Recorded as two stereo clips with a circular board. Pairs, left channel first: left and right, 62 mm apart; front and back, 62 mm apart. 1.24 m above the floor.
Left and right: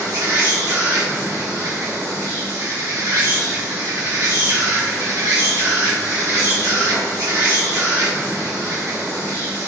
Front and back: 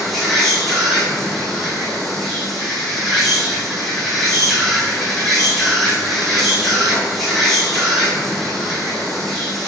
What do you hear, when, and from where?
0.0 s an insect: 85° right, 1.5 m